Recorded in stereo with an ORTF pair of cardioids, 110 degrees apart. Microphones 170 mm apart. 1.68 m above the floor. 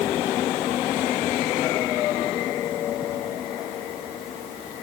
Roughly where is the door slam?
I don't hear a door slam.